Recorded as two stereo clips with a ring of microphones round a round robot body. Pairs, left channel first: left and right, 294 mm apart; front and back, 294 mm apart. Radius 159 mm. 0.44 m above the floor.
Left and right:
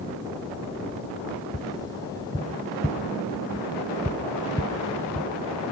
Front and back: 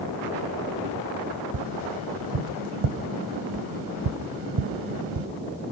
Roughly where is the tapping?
Behind.